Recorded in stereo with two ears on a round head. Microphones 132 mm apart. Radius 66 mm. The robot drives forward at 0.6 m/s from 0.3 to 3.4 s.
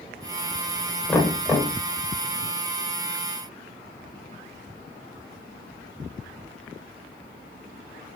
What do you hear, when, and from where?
1.1 s knocking: 5° left (ahead or behind), 2 m